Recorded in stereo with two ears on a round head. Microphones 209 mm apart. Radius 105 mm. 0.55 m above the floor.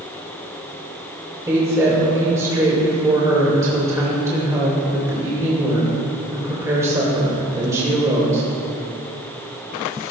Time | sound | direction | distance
1.5 | a woman speaking | 15° right (ahead or behind) | 2.5 m